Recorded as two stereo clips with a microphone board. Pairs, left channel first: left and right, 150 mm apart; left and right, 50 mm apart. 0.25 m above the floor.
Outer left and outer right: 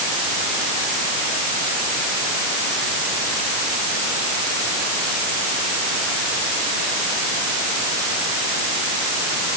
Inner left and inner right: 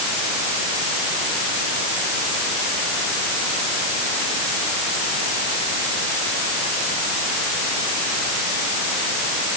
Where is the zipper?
No zipper in this recording.